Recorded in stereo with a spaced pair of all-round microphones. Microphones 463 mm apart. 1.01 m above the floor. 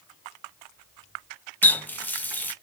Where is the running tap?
5° left (ahead or behind), 0.6 m.